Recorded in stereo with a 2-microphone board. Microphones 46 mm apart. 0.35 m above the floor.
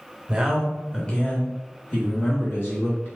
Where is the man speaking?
20° right (ahead or behind), 0.9 m; by 3.1 s 65° left (ahead or behind), 2 m.